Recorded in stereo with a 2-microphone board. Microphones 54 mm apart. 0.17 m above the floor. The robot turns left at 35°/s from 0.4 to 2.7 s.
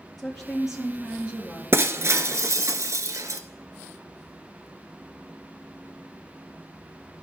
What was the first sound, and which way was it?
A woman speaking, 5° left.